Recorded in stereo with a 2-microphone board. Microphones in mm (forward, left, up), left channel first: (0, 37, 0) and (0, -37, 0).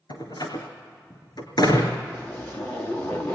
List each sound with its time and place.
0.1 s a door slam: 65° left (ahead or behind), 3.5 m
2.1 s a zipper: 15° left (ahead or behind), 3 m